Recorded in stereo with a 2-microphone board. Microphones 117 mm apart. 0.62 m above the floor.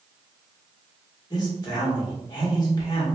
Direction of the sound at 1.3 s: 35° left (ahead or behind).